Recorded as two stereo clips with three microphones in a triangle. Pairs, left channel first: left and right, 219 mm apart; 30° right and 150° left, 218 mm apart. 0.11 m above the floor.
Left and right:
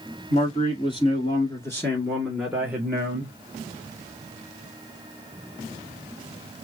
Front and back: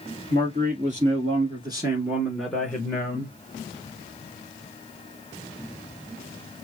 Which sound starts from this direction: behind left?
A man speaking, at 0.3 s.